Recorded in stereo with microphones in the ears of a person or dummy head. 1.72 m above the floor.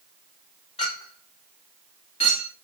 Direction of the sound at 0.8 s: 30° left (ahead or behind).